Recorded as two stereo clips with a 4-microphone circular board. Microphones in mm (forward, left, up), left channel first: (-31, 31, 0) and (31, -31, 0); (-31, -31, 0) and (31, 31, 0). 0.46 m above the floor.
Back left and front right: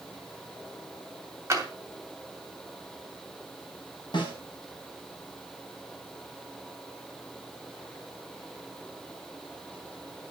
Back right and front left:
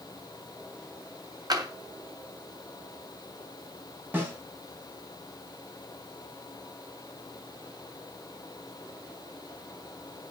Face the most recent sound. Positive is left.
turn(degrees=110)